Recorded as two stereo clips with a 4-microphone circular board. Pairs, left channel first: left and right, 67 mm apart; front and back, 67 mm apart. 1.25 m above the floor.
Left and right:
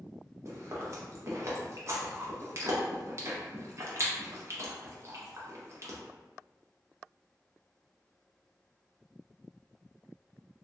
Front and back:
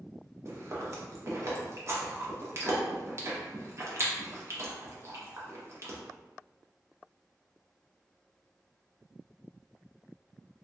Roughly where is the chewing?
Behind right.